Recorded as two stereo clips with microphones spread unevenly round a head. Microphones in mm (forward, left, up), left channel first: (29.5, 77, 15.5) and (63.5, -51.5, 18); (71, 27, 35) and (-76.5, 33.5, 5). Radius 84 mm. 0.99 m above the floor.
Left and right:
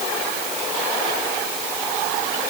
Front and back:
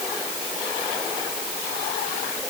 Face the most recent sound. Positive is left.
No sound to turn to.